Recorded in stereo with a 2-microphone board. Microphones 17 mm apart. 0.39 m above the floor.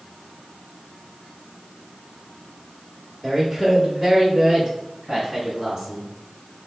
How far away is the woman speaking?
About 0.9 m.